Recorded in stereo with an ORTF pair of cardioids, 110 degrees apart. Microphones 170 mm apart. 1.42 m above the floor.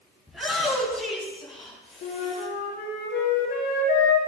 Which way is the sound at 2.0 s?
70° left.